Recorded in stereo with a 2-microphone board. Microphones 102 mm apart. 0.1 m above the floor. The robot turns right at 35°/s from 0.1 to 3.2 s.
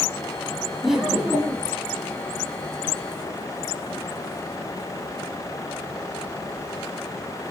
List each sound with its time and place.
0.8 s laughter: straight behind, 4 m; by 1.8 s 150° right, 4 m